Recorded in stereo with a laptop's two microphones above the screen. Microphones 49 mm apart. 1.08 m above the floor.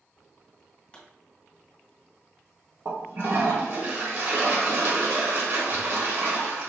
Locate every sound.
0.9 s a pop: 15° left (ahead or behind), 2.0 m
2.9 s a toilet flushing: 50° right (ahead or behind), 1.0 m